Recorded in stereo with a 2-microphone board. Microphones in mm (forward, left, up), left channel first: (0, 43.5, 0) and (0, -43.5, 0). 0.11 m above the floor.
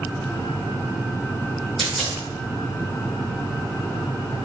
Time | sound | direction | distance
1.8 | a dropped coin | centre (ahead or behind) | 1.7 m